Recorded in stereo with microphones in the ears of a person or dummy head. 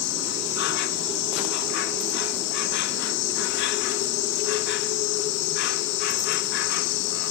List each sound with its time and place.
0.0 s an insect: 60° left (ahead or behind)